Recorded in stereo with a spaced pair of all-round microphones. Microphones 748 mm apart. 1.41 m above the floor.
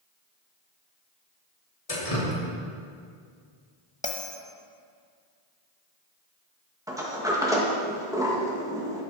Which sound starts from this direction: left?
Dripping, at 1.9 s.